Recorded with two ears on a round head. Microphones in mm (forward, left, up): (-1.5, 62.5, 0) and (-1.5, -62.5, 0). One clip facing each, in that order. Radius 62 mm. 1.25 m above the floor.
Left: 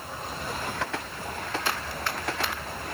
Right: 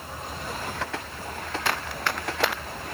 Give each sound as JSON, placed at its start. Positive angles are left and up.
{"t": 1.6, "sound": "running footsteps", "side_deg": -50}